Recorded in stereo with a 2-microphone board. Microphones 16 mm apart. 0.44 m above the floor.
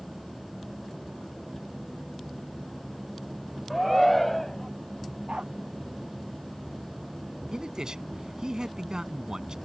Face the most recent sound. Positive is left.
turn(degrees=-45)  # may be behind; listen again after turning